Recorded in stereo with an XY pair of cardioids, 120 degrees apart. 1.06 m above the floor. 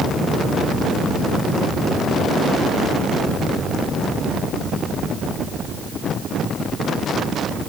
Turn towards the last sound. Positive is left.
No sound to turn to.